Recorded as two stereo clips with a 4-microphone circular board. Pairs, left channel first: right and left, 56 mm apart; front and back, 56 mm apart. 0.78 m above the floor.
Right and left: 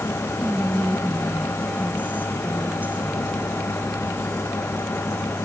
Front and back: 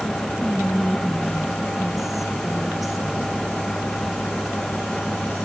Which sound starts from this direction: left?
Whispering, at 0.4 s.